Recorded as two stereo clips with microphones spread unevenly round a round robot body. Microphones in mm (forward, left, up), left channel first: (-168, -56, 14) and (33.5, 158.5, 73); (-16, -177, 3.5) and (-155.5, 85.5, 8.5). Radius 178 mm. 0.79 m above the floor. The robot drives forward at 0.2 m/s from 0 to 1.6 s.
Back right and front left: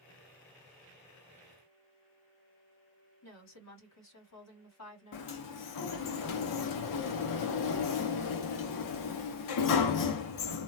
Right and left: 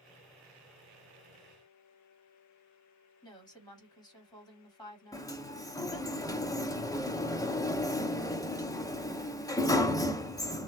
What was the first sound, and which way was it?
A woman speaking, 140° right.